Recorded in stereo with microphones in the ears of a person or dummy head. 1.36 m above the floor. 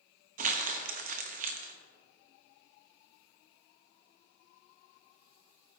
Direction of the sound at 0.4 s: 50° right (ahead or behind).